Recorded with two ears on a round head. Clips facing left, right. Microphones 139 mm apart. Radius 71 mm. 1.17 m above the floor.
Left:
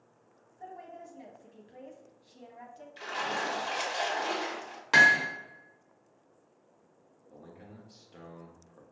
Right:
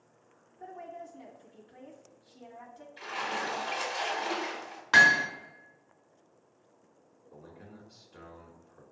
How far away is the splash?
About 1.7 m.